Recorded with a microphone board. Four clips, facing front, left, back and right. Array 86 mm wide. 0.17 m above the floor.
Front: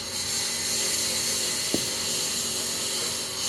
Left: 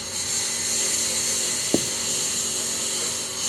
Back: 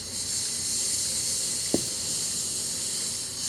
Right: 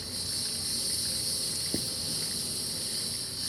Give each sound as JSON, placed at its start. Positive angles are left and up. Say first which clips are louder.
{"t": 0.0, "sound": "a lawn mower", "louder": "left 7 dB, front 6 dB", "azimuth_deg": 50}
{"t": 1.7, "sound": "writing", "louder": "left 13 dB, back 2 dB", "azimuth_deg": 100}